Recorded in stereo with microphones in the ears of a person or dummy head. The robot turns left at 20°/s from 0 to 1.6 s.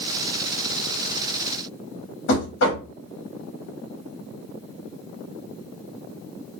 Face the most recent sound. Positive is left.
turn(degrees=70)  # may be behind; listen again after turning